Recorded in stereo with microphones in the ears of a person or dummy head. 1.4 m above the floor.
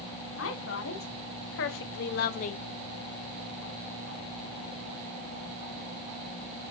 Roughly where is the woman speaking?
Left.